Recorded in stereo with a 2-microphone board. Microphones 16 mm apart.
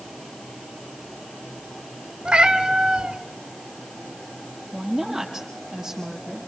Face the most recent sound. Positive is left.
turn(degrees=-20)  # may be behind; listen again after turning